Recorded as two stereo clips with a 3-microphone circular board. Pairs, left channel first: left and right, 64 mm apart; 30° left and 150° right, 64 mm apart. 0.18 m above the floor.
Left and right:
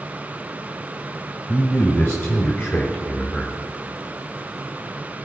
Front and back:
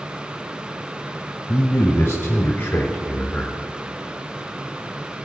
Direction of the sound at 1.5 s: 55° left.